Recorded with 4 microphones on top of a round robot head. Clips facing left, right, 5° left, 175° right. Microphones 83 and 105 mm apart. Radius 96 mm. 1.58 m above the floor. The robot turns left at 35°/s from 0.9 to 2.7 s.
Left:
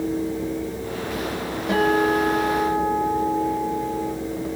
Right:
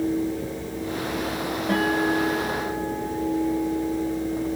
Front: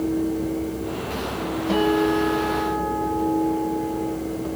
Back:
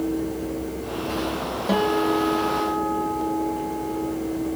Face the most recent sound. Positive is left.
turn(degrees=140)